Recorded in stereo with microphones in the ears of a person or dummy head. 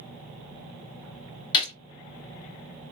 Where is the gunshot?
25° left (ahead or behind), 0.8 m.